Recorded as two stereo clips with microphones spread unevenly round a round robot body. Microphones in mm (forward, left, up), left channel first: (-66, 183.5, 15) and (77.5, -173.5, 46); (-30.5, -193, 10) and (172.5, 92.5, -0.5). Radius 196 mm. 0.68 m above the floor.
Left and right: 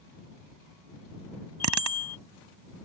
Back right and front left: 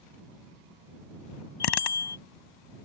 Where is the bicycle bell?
115° right.